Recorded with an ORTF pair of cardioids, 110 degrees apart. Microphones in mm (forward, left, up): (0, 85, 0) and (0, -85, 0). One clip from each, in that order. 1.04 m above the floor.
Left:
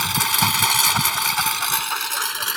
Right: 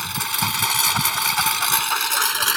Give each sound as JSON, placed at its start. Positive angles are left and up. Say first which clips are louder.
{"t": 0.0, "sound": "a lawn mower", "louder": "left 4 dB", "azimuth_deg": 35}